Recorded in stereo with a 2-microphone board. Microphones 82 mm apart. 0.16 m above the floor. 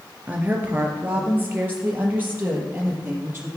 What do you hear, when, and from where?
0.3 s a woman speaking: 20° right (ahead or behind), 2.5 m; by 3.5 s 25° right (ahead or behind), 4.5 m